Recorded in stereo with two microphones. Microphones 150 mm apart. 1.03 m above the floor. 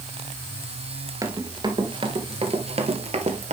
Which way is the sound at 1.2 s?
25° right (ahead or behind).